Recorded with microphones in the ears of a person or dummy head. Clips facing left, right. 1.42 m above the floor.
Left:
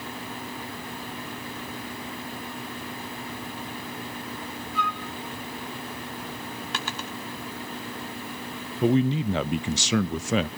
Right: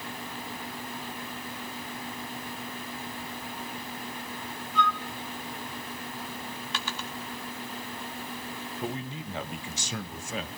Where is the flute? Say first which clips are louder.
Right 4 dB; 5° left (ahead or behind), 1.7 m.